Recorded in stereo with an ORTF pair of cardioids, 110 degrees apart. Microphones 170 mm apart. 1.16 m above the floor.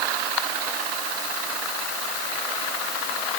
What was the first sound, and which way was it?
Only background noise.